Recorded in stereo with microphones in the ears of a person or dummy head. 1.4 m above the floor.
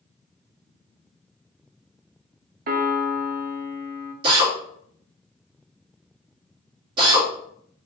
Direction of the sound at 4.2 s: 30° right (ahead or behind).